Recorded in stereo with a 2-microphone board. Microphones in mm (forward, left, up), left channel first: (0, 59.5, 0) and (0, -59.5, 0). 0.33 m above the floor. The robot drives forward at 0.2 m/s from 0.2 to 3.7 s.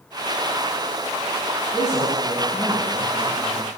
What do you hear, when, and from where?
1.7 s a man speaking: 75° left (ahead or behind), 7.5 m